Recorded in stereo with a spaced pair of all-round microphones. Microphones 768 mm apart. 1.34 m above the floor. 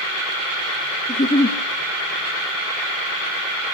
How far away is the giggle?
About 1.1 m.